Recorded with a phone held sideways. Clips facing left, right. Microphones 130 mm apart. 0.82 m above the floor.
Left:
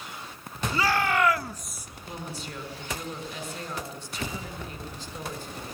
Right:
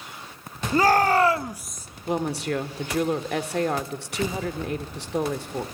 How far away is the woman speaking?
About 2 m.